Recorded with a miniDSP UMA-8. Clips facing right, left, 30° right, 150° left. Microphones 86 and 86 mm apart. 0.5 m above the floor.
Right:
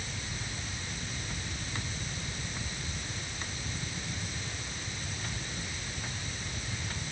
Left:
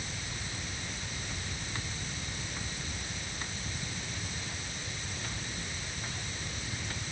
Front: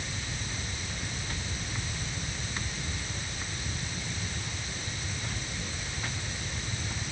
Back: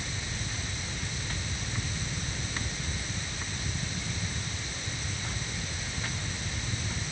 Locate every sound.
Only background noise.